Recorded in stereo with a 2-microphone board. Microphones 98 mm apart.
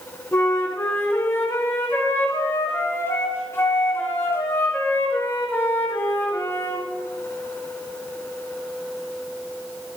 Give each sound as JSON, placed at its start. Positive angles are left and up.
{"t": 0.3, "sound": "a flute", "side_deg": 25, "distance_m": 3.0}